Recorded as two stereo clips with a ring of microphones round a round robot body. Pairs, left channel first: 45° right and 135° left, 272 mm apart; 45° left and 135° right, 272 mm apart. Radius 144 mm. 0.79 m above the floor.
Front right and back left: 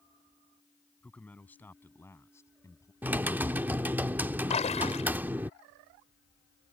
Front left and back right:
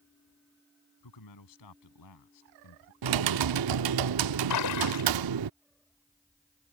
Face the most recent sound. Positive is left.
turn(degrees=25)